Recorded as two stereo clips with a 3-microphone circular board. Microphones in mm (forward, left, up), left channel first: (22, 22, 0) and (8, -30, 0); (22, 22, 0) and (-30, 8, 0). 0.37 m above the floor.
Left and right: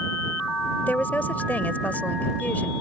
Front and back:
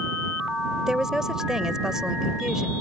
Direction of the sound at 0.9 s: 120° left.